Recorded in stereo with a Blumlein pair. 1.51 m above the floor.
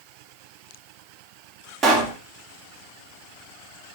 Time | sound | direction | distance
1.8 | a pop | 25° right | 2 m